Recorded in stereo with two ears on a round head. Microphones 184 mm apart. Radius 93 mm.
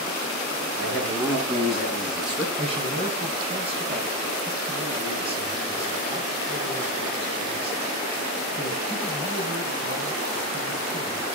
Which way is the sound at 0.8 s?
Centre (ahead or behind).